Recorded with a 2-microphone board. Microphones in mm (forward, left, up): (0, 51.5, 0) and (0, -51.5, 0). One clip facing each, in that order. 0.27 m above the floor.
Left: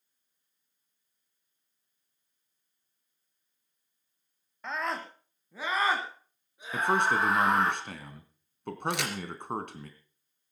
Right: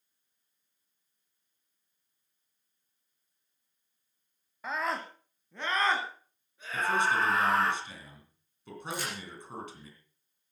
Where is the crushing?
No crushing in this recording.